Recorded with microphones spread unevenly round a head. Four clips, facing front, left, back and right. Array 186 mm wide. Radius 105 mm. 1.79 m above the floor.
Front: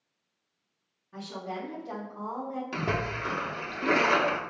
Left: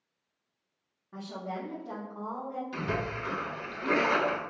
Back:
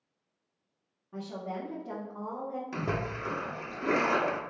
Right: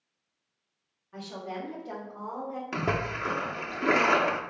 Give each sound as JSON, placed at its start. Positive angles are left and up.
{"t": 1.1, "sound": "a woman speaking", "azimuth_deg": 130, "distance_m": 1.4}
{"t": 2.7, "sound": "a splash", "azimuth_deg": -85, "distance_m": 0.7}